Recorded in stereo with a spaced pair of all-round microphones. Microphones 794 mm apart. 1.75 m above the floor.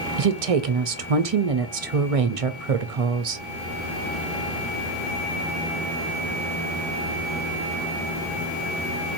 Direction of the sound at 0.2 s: 50° right (ahead or behind).